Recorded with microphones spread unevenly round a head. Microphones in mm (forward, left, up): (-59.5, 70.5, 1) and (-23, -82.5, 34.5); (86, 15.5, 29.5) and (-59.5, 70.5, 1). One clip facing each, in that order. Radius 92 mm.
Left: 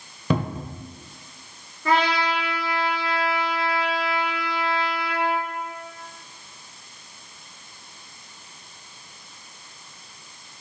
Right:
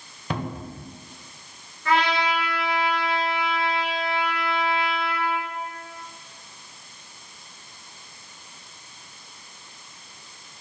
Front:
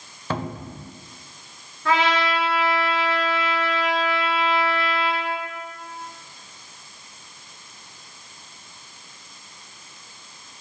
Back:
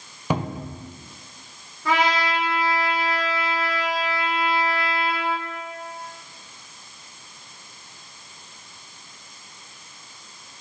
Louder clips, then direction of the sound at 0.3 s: Left 5 dB, back 3 dB; 80° left.